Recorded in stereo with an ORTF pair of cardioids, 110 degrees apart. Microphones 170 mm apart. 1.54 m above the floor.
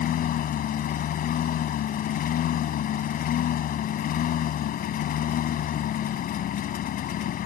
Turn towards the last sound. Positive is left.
turn(degrees=60)